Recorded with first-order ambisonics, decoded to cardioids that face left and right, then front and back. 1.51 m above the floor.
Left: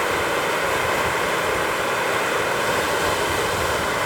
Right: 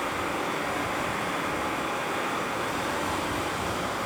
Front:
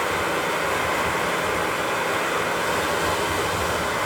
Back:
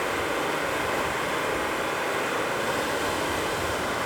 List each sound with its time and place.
0.0 s running water: 75° left, 2.5 m